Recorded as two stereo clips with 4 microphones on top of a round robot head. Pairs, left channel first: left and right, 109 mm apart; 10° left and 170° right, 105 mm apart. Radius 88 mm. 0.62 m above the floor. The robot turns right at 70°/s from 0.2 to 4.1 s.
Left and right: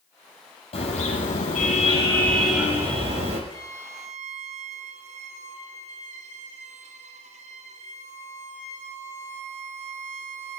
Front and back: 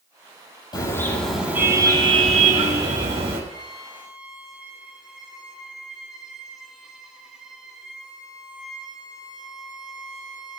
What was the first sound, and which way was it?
A car horn, 60° left.